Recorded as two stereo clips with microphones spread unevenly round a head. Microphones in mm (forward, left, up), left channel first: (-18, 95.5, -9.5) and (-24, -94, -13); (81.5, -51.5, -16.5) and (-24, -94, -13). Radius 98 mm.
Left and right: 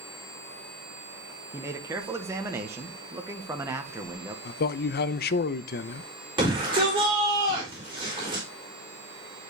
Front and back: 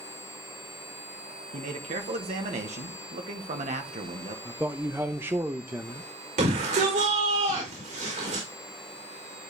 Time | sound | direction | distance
1.5 | a man speaking | 165° right | 1.0 m
4.5 | a man speaking | 125° left | 0.6 m
6.4 | a shout | 155° right | 4 m